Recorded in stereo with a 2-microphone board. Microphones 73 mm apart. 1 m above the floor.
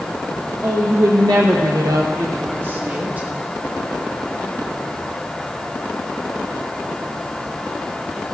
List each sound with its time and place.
0.6 s a woman speaking: 40° right (ahead or behind), 1.2 m; by 3.3 s 15° right (ahead or behind), 1.6 m